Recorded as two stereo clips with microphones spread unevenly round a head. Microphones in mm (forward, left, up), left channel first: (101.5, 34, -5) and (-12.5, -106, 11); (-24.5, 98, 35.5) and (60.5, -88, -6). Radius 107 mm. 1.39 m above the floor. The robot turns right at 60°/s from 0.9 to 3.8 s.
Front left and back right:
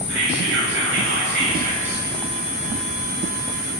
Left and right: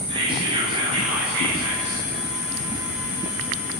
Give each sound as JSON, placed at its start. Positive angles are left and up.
{"t": 0.1, "sound": "whispering", "azimuth_deg": -135, "distance_m": 8.5}